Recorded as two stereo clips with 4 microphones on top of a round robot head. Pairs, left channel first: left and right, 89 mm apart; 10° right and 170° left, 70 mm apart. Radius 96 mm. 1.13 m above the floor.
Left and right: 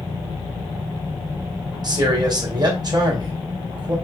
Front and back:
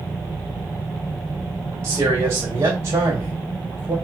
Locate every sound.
1.8 s a man speaking: 135° right, 1.7 m